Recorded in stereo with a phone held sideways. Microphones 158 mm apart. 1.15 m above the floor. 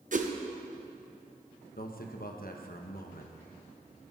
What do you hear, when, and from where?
0.1 s a whoosh: 55° right (ahead or behind), 0.9 m
1.8 s a man speaking: 65° left (ahead or behind), 1.0 m